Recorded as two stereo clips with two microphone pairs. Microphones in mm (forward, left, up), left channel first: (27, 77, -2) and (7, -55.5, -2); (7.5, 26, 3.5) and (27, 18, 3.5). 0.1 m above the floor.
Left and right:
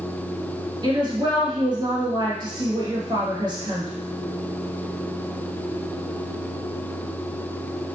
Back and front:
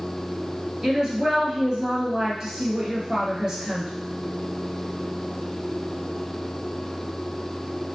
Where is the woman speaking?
60° right, 1.5 m.